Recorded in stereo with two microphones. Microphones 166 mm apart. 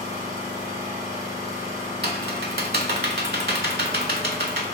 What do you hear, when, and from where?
0.0 s an engine running: 20° right (ahead or behind), 1.7 m
2.0 s typing on a keyboard: 85° right, 0.5 m